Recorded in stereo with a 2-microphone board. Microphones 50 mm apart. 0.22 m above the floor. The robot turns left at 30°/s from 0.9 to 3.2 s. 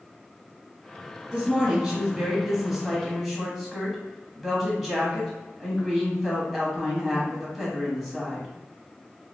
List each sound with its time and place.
1.3 s a woman speaking: 20° right (ahead or behind), 1.2 m; by 8.5 s centre (ahead or behind), 1.2 m